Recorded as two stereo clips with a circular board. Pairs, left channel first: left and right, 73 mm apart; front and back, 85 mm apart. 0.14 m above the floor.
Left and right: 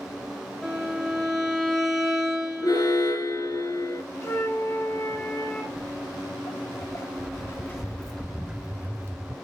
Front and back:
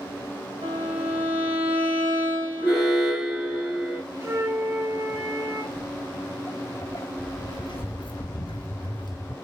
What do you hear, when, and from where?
0.6 s a violin: 175° left, 2.5 m
2.6 s an alarm: 90° left, 6.5 m
4.2 s a flute: 125° left, 3 m
5.7 s footsteps: 65° left, 2 m; by 9.3 s 40° right, 1.1 m